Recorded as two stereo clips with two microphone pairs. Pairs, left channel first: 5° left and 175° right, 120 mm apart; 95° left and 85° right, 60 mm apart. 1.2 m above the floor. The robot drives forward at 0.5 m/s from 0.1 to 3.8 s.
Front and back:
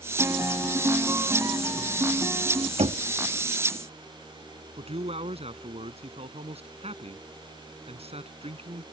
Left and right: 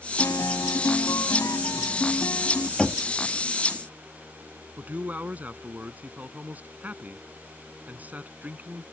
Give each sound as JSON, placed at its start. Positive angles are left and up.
{"t": 0.2, "sound": "a guitar", "azimuth_deg": 115}
{"t": 2.8, "sound": "knocking", "azimuth_deg": 170}
{"t": 4.8, "sound": "a man speaking", "azimuth_deg": -145}